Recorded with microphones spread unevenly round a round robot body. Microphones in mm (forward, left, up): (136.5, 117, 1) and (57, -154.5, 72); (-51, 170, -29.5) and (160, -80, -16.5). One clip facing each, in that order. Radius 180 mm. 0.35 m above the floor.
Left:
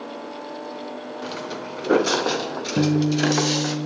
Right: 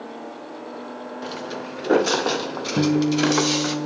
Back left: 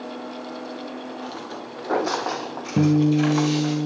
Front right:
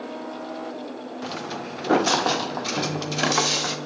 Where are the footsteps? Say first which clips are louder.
Right 1 dB, front right 2 dB; 5° right, 4 m; by 3.8 s 30° right, 5 m.